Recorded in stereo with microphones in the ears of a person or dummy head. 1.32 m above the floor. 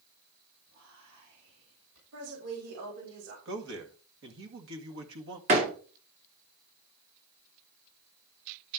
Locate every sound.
0.7 s whispering: 85° right, 6 m
2.1 s a woman speaking: 85° right, 4.5 m
3.5 s a man speaking: 70° right (ahead or behind), 2 m
5.5 s a door slam: 35° right (ahead or behind), 2.5 m